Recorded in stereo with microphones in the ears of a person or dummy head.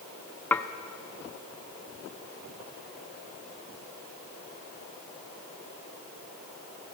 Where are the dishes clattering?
10° left (ahead or behind), 0.8 m.